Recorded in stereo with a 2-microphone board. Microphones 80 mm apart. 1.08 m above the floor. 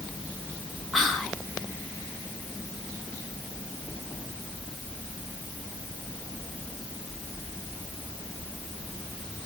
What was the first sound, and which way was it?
Whispering, 5° right (ahead or behind).